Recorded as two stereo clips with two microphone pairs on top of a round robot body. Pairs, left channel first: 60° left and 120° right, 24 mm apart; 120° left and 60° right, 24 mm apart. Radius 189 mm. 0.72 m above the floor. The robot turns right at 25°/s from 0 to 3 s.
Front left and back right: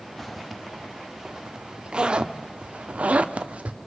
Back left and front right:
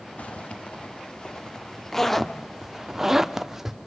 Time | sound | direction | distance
0.2 | a zipper | 150° left | 1.2 m